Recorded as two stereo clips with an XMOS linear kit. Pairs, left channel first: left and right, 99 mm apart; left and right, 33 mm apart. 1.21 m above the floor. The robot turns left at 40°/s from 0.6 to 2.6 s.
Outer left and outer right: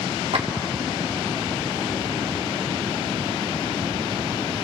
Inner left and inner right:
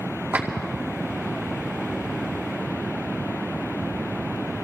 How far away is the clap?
About 2 m.